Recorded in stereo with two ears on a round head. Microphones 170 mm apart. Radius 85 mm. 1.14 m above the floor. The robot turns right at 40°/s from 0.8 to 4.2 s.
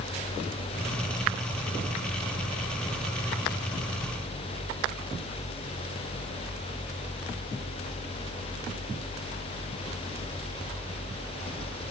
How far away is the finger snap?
I don't hear a finger snap.